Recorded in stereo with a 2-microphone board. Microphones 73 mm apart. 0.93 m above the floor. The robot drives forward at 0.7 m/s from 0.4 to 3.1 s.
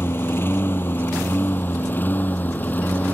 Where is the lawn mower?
30° left (ahead or behind); by 3.1 s 25° left (ahead or behind).